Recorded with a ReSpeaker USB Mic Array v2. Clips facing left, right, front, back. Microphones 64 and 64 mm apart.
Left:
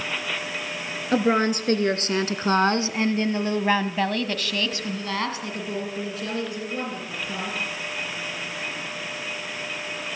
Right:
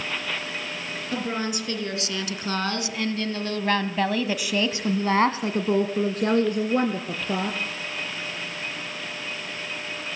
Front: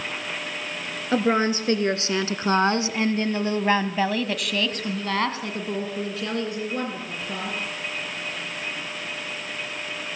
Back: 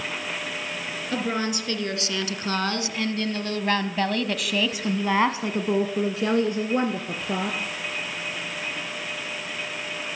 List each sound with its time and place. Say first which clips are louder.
1.1 s a woman speaking: left 8 dB, front 6 dB; 55° left, 3 m; by 7.6 s 120° right, 3 m